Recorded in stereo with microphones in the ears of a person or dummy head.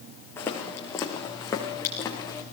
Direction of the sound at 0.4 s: 20° left (ahead or behind).